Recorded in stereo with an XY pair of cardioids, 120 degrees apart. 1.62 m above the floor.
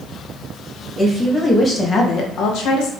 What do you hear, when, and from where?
1.0 s a woman speaking: 10° right, 1.3 m; by 2.9 s 80° left, 1.1 m